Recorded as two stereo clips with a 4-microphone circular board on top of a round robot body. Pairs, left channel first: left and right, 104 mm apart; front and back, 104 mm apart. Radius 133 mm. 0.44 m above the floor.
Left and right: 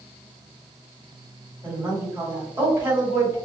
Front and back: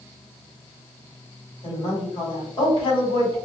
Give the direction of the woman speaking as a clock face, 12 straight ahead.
1 o'clock.